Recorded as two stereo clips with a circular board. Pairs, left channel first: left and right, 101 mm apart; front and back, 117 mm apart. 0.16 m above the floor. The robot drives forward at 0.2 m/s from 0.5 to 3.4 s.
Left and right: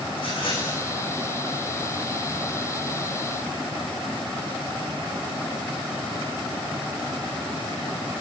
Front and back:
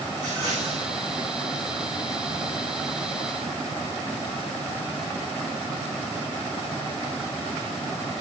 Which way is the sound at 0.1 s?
125° left.